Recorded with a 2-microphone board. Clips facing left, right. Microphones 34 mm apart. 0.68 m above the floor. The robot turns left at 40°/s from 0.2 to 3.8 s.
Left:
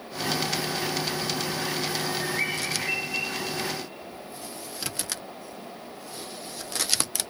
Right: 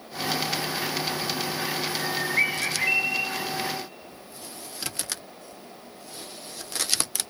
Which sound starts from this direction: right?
A bird, at 2.0 s.